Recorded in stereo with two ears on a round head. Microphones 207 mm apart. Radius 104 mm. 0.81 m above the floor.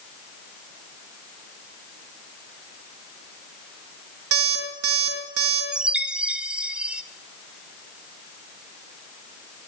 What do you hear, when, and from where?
4.3 s an alarm clock: 65° right (ahead or behind), 6 m
5.7 s a chime: 5° right (ahead or behind), 0.8 m